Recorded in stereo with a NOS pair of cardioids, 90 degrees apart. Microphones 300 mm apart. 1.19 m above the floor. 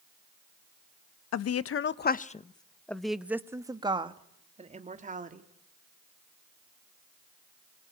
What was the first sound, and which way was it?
A woman speaking, 60° left.